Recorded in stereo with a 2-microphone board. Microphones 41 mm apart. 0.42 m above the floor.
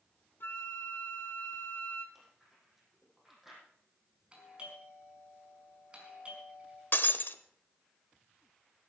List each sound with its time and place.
0.4 s a flute: 60° left (ahead or behind), 1.1 m
2.1 s chewing: 10° right (ahead or behind), 6 m
4.3 s a doorbell: 30° right (ahead or behind), 5 m
6.9 s breaking glass: 60° left (ahead or behind), 0.7 m